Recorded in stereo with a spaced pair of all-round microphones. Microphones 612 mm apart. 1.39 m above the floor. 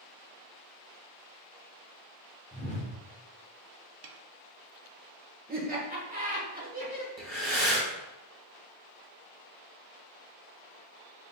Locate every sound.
2.5 s a whoosh: 10° left (ahead or behind), 1.0 m
4.0 s a snare drum: 60° right (ahead or behind), 0.5 m
5.5 s laughter: 15° right (ahead or behind), 1.5 m
7.2 s breathing: 35° right (ahead or behind), 1.5 m